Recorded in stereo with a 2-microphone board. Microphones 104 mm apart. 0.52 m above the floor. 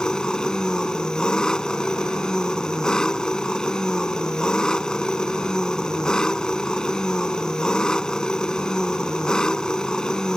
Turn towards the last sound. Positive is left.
turn(degrees=5)  # may be behind; listen again after turning